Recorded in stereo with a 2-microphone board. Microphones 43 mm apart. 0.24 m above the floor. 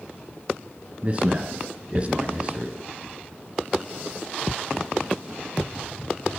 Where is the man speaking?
25° right (ahead or behind), 2.5 m.